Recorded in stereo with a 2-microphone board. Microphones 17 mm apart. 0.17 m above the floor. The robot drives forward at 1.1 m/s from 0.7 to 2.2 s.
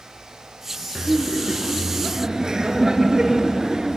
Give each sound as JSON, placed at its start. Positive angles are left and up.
{"t": 0.9, "sound": "laughter", "side_deg": -55, "distance_m": 1.8}